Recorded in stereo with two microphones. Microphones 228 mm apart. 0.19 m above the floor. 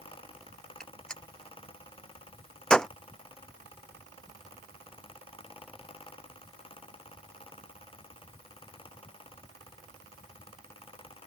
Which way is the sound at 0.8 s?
5° left (ahead or behind).